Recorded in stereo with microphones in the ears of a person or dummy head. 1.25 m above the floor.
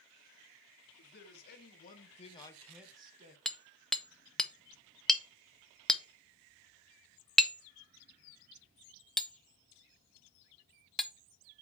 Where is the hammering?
5° left (ahead or behind), 0.6 m.